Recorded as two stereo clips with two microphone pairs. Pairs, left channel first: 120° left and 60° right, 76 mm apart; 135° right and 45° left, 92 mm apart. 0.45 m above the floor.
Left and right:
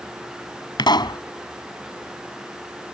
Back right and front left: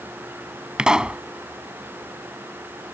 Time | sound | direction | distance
0.8 | a pop | 130° left | ?